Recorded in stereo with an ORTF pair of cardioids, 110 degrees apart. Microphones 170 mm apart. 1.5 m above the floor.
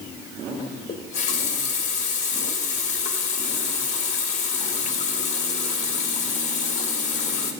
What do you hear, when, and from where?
0.9 s a running tap: 45° left, 1.8 m